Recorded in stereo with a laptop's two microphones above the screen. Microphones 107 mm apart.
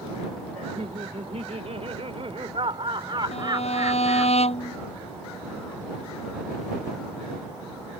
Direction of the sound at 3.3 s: 70° left (ahead or behind).